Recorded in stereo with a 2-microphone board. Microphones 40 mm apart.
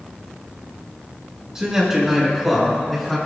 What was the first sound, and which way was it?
A man speaking, 15° right (ahead or behind).